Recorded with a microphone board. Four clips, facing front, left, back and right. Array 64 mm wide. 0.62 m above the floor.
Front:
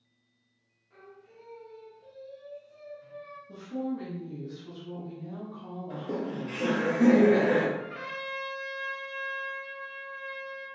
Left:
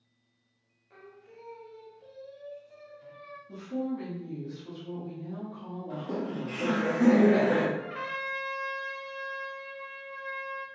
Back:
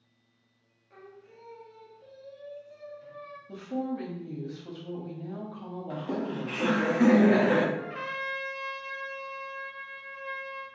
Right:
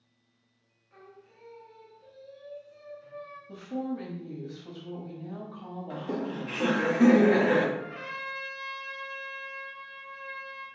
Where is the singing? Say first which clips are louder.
Left 2 dB, back 2 dB; 125° left, 0.9 m.